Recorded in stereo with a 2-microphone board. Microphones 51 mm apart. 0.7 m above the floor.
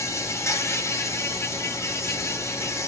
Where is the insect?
65° left (ahead or behind), 2.5 m.